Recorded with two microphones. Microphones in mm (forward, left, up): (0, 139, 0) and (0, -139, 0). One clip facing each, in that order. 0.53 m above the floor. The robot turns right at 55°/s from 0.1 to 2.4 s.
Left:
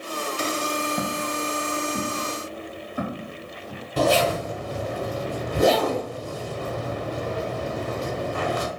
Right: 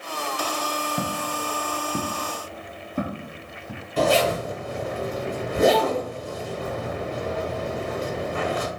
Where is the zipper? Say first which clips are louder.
Even; 45° left (ahead or behind), 0.9 m.